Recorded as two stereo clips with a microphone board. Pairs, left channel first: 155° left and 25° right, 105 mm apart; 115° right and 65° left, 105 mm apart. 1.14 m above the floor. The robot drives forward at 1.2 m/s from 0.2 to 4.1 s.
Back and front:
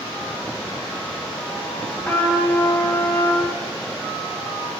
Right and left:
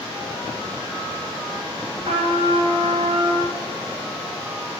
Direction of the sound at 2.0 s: 90° left.